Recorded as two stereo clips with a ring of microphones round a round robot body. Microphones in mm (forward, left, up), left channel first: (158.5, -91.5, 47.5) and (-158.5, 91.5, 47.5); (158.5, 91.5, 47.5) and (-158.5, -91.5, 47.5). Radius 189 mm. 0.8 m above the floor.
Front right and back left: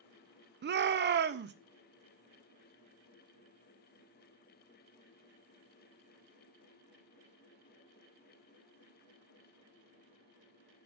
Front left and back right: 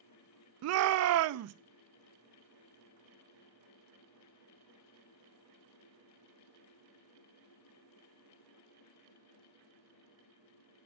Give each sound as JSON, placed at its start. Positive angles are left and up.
{"t": 0.6, "sound": "a shout", "azimuth_deg": -165, "distance_m": 0.6}